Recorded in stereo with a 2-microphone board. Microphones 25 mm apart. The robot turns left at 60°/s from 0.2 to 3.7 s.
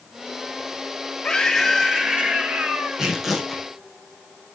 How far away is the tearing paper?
About 3.5 m.